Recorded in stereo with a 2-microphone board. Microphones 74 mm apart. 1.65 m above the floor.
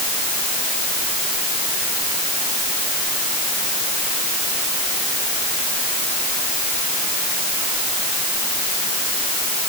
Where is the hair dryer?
No hair dryer in this recording.